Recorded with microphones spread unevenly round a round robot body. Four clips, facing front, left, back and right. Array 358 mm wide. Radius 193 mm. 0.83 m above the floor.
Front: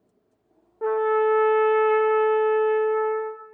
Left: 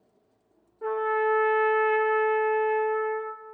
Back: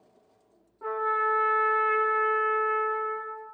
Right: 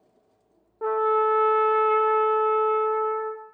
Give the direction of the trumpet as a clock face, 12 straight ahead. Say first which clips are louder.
Right 4 dB, front 7 dB; 1 o'clock.